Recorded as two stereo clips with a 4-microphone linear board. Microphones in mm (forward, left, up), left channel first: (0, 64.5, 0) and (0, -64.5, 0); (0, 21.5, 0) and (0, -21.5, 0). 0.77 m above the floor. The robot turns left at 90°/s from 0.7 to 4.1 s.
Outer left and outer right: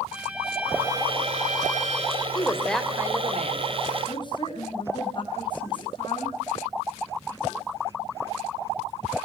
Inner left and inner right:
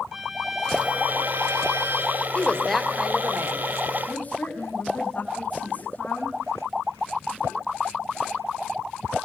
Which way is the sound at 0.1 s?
5° right.